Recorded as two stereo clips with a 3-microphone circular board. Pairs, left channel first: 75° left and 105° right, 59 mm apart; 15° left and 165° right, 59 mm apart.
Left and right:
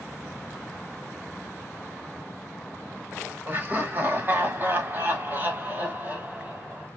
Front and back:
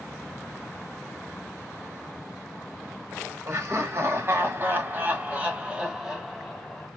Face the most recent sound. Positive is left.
turn(degrees=-60)